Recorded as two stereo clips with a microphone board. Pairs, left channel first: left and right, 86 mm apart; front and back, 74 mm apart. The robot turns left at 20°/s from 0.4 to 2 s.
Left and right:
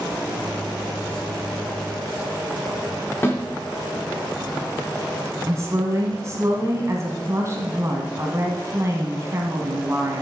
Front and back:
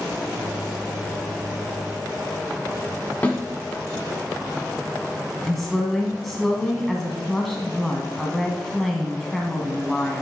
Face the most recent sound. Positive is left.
turn(degrees=-90)